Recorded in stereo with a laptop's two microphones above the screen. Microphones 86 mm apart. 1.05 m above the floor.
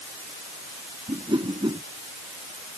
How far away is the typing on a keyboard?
No typing on a keyboard in this recording.